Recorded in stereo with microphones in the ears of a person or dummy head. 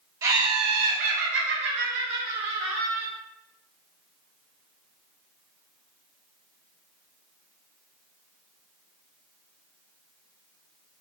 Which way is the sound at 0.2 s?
20° right (ahead or behind).